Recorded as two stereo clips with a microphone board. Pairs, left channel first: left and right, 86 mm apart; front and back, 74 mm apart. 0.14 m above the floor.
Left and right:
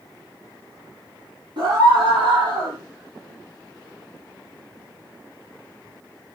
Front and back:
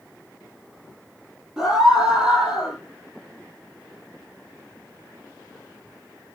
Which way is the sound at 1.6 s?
100° right.